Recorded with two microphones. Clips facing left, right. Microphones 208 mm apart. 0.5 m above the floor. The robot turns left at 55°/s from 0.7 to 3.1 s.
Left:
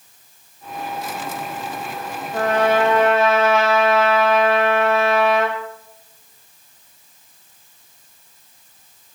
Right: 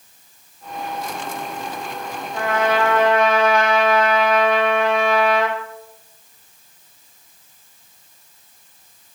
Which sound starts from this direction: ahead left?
A trumpet, at 2.3 s.